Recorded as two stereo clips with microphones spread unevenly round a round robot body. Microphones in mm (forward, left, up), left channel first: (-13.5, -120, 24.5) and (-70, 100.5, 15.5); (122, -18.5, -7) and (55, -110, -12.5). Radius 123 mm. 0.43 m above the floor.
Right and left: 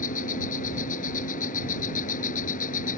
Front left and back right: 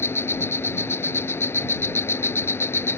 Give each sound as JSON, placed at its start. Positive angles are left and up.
{"t": 0.0, "sound": "an insect", "azimuth_deg": -15}